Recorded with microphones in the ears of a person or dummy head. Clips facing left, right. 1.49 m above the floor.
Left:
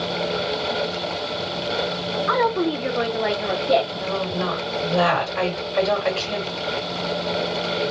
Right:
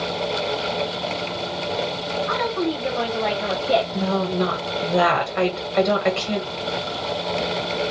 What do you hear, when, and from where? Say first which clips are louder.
2.3 s a woman speaking: left 4 dB; 65° left (ahead or behind), 0.6 m; by 3.8 s 5° right (ahead or behind), 1.0 m
3.9 s a woman speaking: right 3 dB; 30° right (ahead or behind), 1.3 m